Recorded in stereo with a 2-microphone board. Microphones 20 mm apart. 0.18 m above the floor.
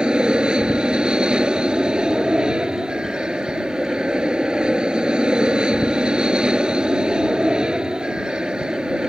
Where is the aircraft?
45° right (ahead or behind).